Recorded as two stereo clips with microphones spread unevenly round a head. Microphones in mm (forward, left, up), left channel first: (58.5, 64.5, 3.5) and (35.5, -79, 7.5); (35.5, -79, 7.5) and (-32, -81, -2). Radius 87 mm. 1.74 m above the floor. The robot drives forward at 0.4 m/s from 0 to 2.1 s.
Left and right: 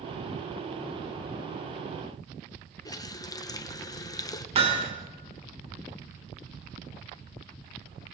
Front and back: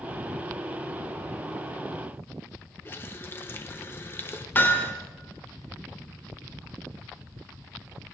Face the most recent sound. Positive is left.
turn(degrees=-55)